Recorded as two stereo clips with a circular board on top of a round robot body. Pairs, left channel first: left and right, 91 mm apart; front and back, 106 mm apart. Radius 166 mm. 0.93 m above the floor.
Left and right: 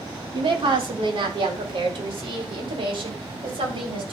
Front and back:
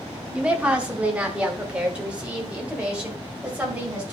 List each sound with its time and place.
0.3 s a woman speaking: 100° right, 1.9 m